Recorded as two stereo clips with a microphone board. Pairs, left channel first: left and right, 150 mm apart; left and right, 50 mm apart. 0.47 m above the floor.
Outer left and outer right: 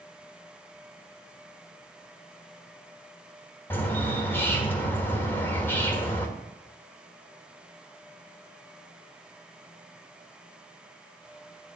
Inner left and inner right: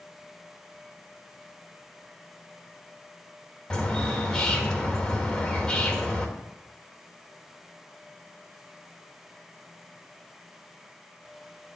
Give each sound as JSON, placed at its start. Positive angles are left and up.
{"t": 3.7, "sound": "a bird", "side_deg": 15, "distance_m": 1.5}